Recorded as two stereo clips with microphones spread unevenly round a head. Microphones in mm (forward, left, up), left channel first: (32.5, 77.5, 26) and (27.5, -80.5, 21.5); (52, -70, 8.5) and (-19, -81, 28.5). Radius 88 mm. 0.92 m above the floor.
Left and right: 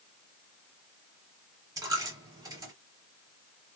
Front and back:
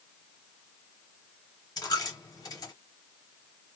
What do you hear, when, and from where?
1.8 s a dropped coin: 25° right, 1.6 m